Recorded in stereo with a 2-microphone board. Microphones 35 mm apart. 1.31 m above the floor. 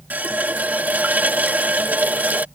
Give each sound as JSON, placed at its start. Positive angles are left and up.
{"t": 0.1, "sound": "a running tap", "side_deg": -50}